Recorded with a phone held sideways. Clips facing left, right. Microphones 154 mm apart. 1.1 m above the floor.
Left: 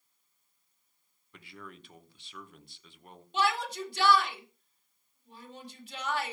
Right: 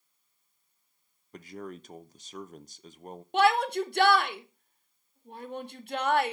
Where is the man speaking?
45° right (ahead or behind), 1.0 m.